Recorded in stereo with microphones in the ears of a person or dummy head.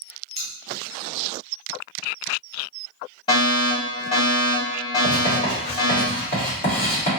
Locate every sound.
0.3 s scissors: 30° left (ahead or behind), 0.5 m
3.3 s a fire alarm: 25° left (ahead or behind), 1.7 m
5.0 s writing: 25° left (ahead or behind), 1.6 m